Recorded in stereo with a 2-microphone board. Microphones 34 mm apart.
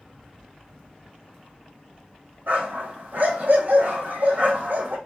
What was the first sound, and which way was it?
A dog barking, 55° right (ahead or behind).